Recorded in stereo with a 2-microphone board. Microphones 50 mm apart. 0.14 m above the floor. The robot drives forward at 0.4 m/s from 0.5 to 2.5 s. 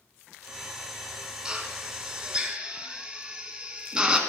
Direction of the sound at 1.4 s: 15° right (ahead or behind).